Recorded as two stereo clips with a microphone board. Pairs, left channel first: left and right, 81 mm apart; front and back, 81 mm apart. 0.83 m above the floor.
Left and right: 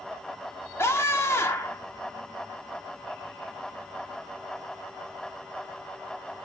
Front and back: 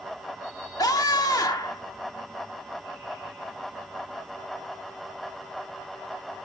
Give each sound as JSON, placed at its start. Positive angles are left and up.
{"t": 0.8, "sound": "a scream", "azimuth_deg": 35, "distance_m": 1.6}